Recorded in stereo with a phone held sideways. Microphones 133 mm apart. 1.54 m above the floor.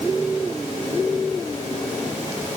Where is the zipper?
No zipper in this recording.